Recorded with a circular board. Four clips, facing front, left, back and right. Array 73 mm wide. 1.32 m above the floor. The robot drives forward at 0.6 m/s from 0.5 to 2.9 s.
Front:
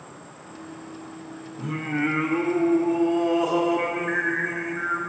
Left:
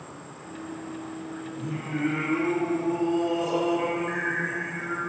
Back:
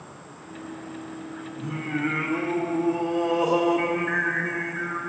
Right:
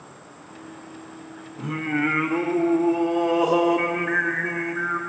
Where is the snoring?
I don't hear snoring.